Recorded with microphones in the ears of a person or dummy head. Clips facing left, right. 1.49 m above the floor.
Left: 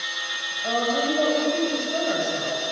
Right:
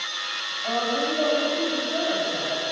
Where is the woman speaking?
40° left (ahead or behind), 10 m.